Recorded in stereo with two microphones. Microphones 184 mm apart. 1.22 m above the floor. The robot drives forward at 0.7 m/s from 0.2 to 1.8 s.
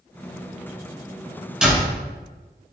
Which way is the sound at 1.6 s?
5° right (ahead or behind).